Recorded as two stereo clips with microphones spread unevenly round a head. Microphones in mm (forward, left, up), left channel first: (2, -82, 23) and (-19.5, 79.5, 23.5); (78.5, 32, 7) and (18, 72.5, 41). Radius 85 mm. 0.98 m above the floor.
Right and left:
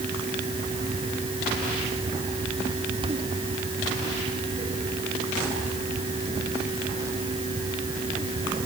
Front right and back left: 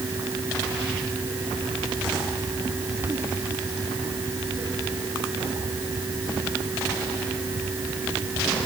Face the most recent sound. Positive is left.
No sound to turn to.